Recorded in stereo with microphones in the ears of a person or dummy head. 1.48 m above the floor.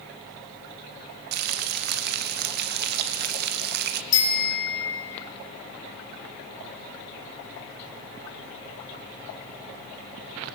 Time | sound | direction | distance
1.3 | frying | 60° right (ahead or behind) | 0.9 m
4.1 | a bicycle bell | 30° left (ahead or behind) | 3.5 m